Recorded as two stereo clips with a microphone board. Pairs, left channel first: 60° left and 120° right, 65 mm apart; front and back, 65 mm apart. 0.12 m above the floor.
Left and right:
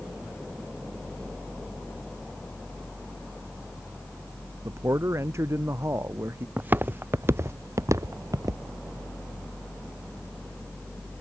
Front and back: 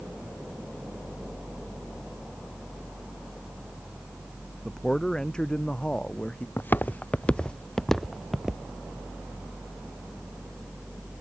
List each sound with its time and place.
4.7 s a man speaking: 80° right; by 6.5 s 75° right
6.6 s footsteps: 60° right; by 8.6 s 95° right